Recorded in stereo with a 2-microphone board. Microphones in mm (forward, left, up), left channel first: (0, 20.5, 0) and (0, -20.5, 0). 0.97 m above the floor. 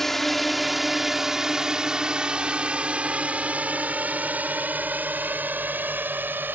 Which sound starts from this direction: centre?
A drone, at 0.0 s.